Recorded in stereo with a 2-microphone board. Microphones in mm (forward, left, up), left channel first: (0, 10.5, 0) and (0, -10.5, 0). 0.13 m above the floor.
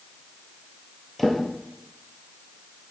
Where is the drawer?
15° left (ahead or behind), 1.5 m.